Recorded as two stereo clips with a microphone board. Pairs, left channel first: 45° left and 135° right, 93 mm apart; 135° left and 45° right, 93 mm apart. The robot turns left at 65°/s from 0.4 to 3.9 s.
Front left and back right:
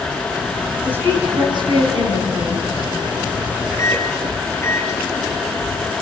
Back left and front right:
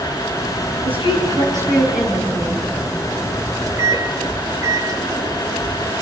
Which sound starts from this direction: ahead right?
A woman speaking, at 0.8 s.